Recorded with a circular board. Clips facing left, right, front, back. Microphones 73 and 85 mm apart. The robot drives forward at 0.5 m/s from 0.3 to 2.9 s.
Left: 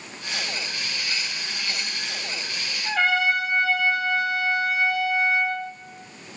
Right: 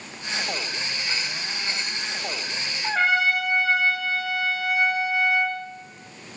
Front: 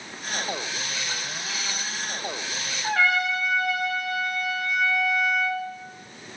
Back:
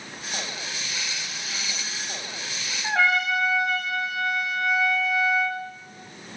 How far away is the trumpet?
About 6.5 m.